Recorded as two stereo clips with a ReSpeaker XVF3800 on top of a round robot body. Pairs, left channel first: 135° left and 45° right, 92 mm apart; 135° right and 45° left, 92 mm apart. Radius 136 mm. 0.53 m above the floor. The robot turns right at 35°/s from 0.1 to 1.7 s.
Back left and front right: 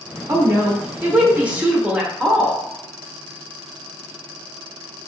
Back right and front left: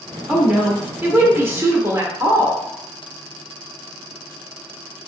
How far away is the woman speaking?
About 0.9 m.